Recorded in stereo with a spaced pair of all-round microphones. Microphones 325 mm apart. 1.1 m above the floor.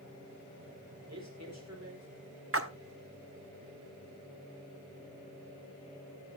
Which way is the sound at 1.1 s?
55° right (ahead or behind).